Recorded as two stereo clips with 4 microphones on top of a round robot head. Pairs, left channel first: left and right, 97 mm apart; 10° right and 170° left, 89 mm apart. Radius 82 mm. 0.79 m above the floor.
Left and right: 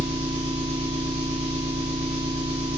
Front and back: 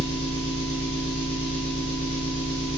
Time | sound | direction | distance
0.0 | an engine running | 10° right | 1.0 m